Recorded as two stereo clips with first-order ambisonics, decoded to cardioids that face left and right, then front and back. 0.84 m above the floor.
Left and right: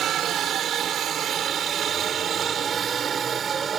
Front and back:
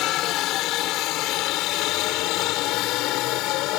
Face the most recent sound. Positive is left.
turn(degrees=-25)